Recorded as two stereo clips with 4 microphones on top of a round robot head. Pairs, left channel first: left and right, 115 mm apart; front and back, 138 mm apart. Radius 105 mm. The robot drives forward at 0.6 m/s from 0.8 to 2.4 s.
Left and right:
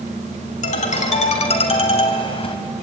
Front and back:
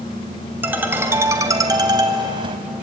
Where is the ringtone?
105° left, 2 m; by 2.6 s 125° left, 2.5 m.